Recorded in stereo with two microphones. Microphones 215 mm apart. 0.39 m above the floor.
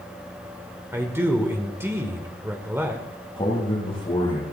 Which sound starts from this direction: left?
A man speaking, at 3.4 s.